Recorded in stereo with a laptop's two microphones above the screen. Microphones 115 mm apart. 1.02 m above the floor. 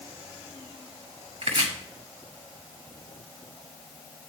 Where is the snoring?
I don't hear snoring.